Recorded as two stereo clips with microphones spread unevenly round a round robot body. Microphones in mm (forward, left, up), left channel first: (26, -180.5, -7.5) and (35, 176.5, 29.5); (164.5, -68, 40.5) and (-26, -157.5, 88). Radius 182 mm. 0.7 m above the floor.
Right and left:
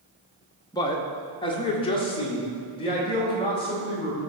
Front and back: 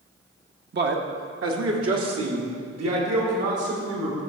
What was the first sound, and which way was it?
A man speaking, 155° right.